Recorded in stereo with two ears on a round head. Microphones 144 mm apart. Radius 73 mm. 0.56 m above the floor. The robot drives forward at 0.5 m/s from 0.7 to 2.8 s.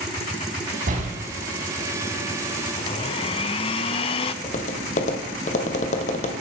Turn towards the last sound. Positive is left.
turn(degrees=45)  # may be behind; listen again after turning